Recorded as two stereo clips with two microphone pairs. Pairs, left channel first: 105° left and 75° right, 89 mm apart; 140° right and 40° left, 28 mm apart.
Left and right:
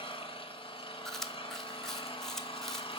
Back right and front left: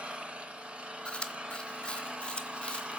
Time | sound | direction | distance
0.0 | an engine running | 85° left | 1.0 m
1.1 | chewing | 170° right | 0.7 m